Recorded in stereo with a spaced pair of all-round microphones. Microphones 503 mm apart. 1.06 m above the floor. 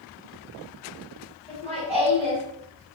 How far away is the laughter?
About 4 m.